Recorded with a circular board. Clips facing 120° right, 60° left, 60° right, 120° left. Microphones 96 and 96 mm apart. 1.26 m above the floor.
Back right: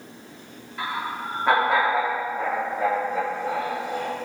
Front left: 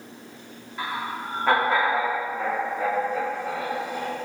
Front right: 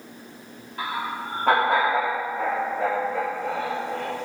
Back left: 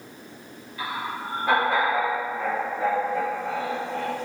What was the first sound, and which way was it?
Laughter, 30° right.